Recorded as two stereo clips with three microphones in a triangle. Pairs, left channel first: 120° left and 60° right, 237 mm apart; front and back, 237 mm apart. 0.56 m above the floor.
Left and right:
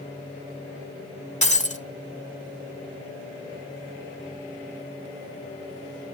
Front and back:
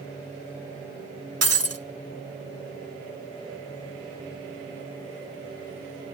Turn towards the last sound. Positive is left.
turn(degrees=180)